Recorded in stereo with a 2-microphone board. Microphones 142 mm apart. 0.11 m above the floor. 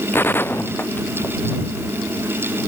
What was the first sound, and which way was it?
A gunshot, 15° left (ahead or behind).